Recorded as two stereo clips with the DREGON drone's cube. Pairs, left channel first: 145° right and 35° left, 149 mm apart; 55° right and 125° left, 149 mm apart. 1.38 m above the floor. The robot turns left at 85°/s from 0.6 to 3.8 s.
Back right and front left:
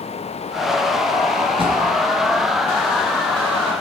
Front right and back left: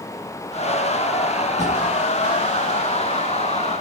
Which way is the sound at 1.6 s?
90° left.